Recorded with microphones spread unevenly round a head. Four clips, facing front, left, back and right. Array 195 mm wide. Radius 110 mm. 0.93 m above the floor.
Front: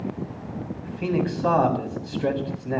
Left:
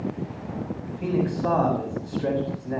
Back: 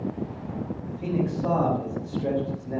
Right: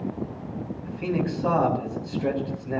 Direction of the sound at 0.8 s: Straight ahead.